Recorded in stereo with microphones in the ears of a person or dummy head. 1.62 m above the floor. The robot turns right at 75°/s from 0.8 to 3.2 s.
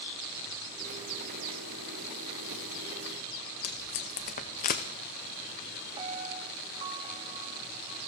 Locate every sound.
3.6 s tape being pulled: 25° left (ahead or behind), 0.8 m
6.0 s a piano: 30° right (ahead or behind), 1.5 m